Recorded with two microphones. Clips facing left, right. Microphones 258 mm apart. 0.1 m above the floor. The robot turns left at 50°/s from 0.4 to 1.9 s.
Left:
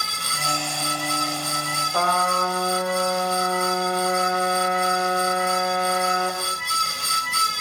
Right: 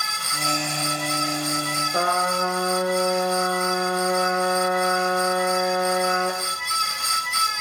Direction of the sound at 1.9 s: 25° right (ahead or behind).